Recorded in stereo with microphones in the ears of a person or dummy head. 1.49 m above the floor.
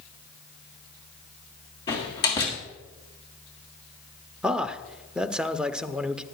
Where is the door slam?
20° left (ahead or behind), 1.6 m.